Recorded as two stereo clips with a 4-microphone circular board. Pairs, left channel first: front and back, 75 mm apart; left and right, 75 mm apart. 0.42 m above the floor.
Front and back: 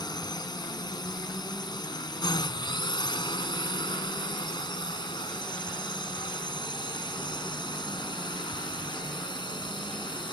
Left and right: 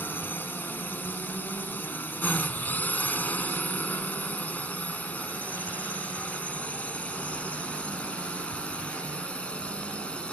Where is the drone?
25° left; by 10.3 s 15° left.